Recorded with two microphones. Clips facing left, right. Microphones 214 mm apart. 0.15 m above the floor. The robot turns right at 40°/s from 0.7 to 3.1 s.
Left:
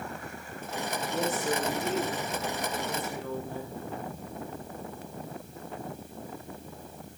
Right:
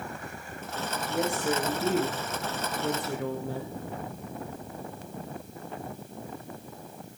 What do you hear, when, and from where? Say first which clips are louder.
1.1 s a woman speaking: right 2 dB; straight behind, 4 m; by 3.8 s 95° right, 4 m